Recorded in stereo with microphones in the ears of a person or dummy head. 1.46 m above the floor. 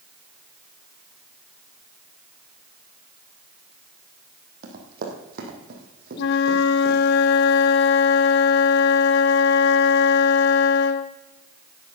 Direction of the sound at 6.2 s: 55° left (ahead or behind).